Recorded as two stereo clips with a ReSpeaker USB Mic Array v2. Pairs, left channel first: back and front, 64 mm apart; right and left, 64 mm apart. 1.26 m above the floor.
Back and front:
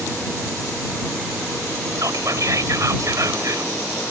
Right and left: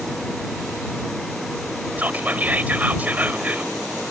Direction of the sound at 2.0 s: 30° left.